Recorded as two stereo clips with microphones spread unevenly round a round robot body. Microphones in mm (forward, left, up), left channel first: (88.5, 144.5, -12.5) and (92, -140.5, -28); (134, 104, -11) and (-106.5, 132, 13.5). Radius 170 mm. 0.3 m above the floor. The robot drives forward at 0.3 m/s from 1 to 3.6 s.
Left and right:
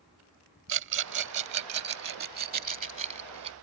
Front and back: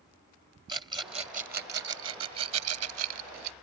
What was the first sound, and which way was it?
A rattle, 110° right.